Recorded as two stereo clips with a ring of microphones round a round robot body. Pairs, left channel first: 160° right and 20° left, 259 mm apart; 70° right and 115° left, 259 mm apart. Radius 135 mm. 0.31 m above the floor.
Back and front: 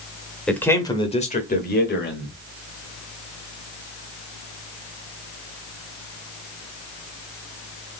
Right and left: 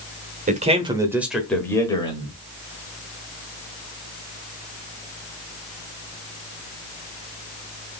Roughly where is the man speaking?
Behind left.